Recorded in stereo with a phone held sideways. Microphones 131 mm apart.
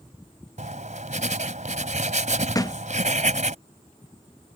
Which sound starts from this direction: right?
Writing, at 0.6 s.